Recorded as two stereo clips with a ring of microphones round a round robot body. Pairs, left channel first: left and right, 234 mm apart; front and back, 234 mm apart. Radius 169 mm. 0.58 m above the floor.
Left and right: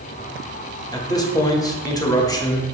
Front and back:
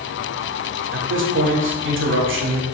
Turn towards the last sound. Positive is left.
turn(degrees=165)